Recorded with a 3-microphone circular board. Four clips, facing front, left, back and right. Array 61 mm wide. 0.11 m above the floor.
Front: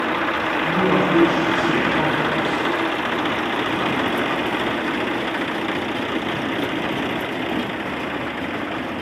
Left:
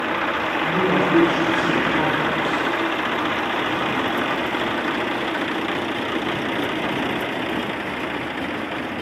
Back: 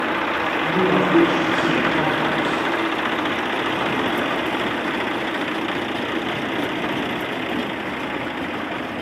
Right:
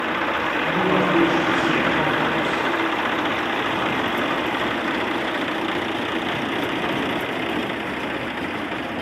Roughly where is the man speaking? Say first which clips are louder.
Left 1 dB, even; behind.